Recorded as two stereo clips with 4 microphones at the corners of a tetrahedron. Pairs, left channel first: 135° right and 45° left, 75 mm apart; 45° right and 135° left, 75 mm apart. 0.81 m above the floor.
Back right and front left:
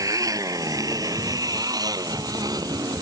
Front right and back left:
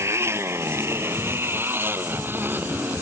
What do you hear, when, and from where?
0.0 s a motorcycle: 85° left; by 3.0 s 70° left